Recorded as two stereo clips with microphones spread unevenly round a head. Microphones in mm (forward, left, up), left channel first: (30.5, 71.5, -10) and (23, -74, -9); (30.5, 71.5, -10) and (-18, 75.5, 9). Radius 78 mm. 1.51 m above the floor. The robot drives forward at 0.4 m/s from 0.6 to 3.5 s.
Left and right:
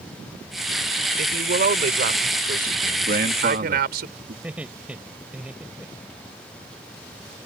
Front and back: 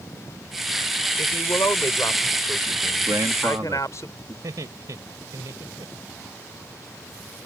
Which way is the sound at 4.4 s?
175° right.